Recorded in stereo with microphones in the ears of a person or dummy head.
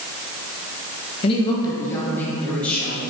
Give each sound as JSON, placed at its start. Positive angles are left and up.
{"t": 1.2, "sound": "a woman speaking", "side_deg": 35, "distance_m": 1.4}